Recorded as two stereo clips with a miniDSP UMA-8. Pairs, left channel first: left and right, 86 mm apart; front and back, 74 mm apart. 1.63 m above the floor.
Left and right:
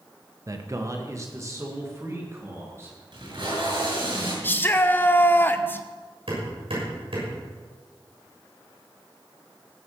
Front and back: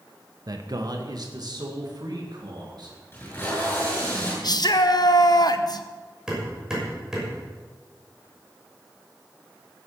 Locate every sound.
0.5 s a man speaking: 140° right, 1.3 m; by 3.0 s 150° right, 3.5 m
3.1 s tape being pulled: 65° right, 7.5 m
4.4 s a shout: 25° left, 0.9 m
6.3 s hammering: 100° right, 6 m